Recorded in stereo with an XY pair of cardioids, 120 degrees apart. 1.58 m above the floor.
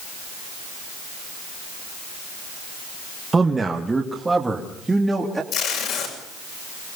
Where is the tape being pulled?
65° left, 7.5 m.